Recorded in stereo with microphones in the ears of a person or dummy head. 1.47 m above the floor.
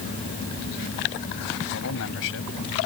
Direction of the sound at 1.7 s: 70° left (ahead or behind).